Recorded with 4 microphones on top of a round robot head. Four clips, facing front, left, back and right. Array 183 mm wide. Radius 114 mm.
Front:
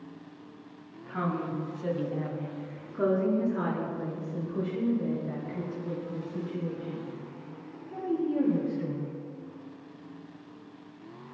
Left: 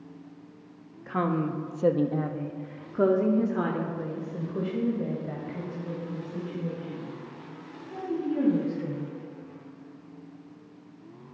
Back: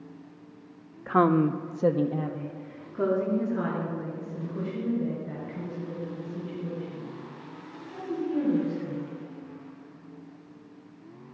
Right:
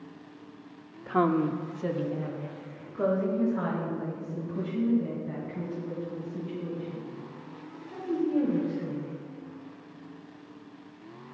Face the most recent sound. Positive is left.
turn(degrees=70)